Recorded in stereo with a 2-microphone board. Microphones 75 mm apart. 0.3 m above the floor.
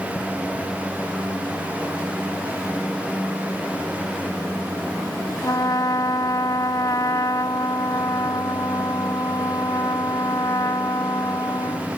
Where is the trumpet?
60° left (ahead or behind).